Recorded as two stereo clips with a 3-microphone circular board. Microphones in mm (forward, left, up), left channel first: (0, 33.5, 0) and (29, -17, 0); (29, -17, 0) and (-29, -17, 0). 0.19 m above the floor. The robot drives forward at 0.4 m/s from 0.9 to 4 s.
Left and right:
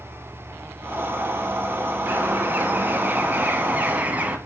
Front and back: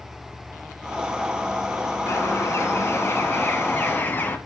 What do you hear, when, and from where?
2.1 s a bird: 10° right, 1.7 m; by 4.4 s 15° right, 1.2 m